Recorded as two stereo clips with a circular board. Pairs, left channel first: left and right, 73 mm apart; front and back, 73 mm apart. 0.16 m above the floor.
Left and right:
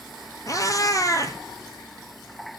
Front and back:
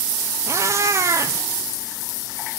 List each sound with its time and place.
0.5 s a cat meowing: 130° left, 1.5 m